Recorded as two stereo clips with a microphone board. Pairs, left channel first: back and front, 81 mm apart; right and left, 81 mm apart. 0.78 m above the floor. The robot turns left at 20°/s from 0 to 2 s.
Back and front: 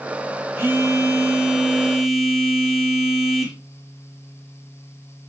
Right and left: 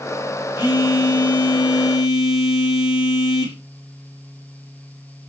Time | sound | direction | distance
0.6 | a phone buzzing | 60° right | 2 m